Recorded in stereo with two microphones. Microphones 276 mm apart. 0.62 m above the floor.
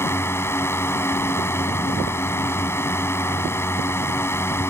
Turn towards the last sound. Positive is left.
turn(degrees=10)  # may be behind; listen again after turning